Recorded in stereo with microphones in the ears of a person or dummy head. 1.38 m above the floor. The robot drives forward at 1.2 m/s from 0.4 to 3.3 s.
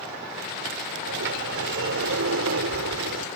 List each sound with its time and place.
1.1 s a sliding door: 70° right (ahead or behind); by 3.2 s 85° right